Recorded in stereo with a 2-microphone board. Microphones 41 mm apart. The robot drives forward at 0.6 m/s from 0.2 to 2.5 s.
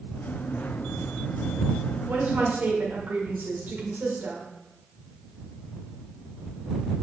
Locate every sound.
2.1 s a woman speaking: 55° right (ahead or behind), 1.7 m